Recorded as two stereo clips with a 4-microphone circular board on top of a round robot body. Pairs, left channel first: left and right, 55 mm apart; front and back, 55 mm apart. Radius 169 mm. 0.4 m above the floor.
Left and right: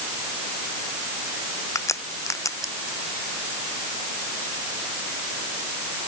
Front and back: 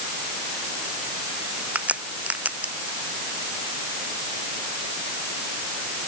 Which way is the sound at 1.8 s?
115° left.